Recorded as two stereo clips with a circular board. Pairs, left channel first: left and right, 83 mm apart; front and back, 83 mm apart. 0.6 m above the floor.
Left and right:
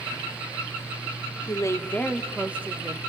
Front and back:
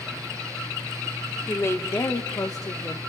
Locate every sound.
1.5 s a woman speaking: 60° left, 1.9 m; by 3.0 s 45° right, 1.9 m